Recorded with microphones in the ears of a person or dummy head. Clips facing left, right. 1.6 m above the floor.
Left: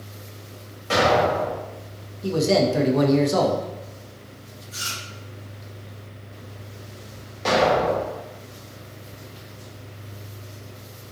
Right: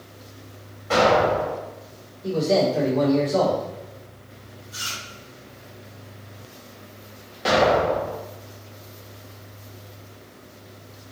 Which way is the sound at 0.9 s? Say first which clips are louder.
Right 1 dB; 45° left (ahead or behind).